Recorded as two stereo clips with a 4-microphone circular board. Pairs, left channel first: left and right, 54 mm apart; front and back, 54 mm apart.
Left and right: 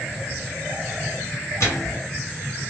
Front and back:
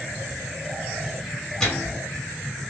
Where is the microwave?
80° left, 2.0 m.